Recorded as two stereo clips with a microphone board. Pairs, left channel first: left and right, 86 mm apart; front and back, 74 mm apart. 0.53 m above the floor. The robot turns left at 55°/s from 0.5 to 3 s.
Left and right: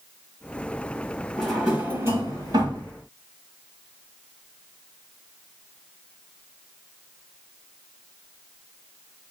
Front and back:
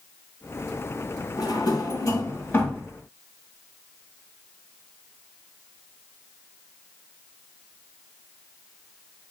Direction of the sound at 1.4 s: 5° left.